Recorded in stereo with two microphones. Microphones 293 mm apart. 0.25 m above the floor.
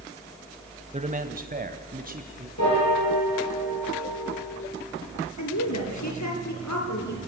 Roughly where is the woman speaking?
Left.